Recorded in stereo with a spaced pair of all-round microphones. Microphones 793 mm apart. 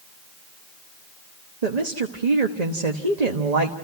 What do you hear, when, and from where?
1.6 s a woman speaking: 55° right (ahead or behind), 1.3 m